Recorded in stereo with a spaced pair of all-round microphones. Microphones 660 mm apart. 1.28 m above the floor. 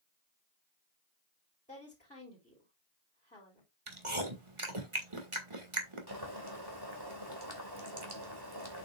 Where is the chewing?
45° right (ahead or behind), 1.8 m.